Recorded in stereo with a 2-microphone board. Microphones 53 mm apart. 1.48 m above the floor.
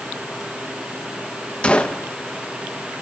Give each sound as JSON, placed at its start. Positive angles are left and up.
{"t": 1.6, "sound": "a gunshot", "side_deg": 20, "distance_m": 1.1}